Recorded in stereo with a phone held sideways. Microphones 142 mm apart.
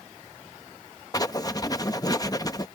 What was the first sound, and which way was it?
Writing, 25° left (ahead or behind).